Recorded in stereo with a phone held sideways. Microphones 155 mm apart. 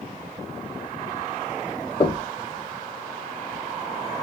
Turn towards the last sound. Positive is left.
turn(degrees=35)  # may be behind; listen again after turning